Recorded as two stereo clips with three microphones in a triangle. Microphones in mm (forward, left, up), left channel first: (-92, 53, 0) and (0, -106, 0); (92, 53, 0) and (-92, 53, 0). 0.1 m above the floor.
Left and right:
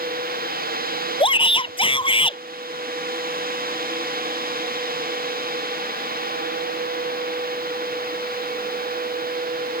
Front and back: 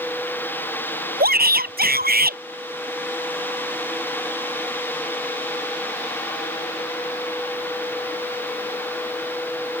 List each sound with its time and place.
1.2 s a shout: 175° left